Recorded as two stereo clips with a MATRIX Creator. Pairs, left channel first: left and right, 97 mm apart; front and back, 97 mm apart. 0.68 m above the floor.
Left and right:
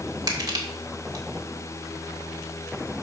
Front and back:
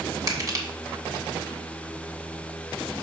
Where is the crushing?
135° right, 1.6 m.